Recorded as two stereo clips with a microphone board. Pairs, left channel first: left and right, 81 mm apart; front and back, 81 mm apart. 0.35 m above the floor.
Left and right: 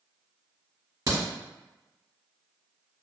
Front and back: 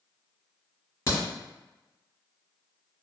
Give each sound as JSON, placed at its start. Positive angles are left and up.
{"t": 1.1, "sound": "a crack", "azimuth_deg": -55, "distance_m": 1.9}